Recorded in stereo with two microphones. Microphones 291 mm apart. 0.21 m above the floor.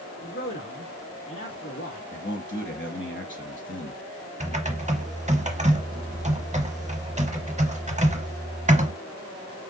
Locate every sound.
0.2 s a man speaking: 45° left (ahead or behind), 2 m
2.1 s a man speaking: 40° left (ahead or behind), 1.6 m
4.4 s typing on a keyboard: 25° right (ahead or behind), 0.8 m